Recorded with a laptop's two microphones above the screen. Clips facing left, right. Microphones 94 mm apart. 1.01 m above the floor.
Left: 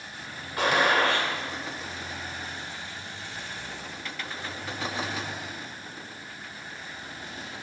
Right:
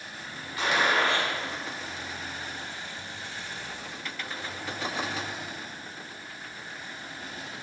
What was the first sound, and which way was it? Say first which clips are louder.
A gunshot: left 2 dB; 55° left (ahead or behind).